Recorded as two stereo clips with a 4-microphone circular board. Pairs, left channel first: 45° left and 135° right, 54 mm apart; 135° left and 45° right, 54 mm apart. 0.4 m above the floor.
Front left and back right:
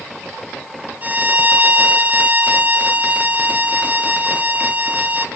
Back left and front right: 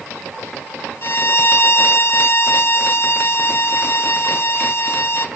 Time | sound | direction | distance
1.0 | a violin | 170° left | 1.8 m